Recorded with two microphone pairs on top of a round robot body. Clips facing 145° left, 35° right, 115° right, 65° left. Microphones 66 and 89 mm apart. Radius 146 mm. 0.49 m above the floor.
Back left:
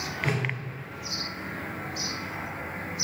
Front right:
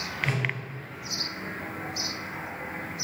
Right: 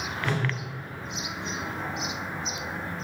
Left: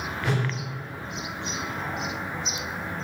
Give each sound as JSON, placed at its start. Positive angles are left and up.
{"t": 0.2, "sound": "a whoosh", "azimuth_deg": 140, "distance_m": 1.6}